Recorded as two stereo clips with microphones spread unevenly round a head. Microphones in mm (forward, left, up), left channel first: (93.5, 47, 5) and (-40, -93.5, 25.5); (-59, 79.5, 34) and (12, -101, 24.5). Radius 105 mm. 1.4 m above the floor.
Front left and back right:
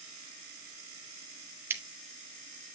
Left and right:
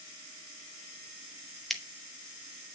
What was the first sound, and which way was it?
Scissors, 170° right.